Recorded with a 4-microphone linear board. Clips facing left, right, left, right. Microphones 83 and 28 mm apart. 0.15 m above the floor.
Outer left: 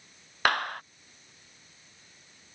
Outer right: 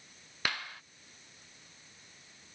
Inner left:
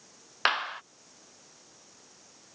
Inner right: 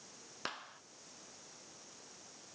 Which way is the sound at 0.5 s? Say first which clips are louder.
Outer left 11 dB, inner left 18 dB; 65° left (ahead or behind).